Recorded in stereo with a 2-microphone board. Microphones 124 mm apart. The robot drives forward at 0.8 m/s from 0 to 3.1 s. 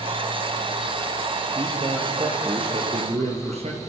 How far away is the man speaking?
About 5 m.